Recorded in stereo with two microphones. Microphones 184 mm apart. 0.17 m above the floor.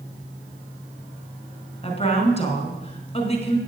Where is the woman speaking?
35° left (ahead or behind), 1.8 m.